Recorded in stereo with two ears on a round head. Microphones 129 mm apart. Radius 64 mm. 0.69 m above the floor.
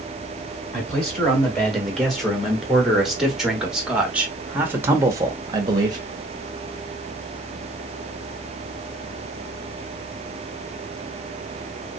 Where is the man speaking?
5° left (ahead or behind), 2.5 m; by 6.0 s 30° right (ahead or behind), 0.7 m.